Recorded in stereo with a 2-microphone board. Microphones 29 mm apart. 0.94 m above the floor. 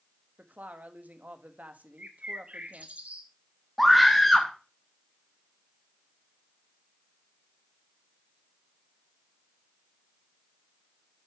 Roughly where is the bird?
Right.